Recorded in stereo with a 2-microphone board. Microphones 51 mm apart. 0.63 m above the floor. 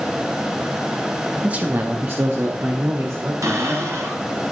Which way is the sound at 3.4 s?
80° right.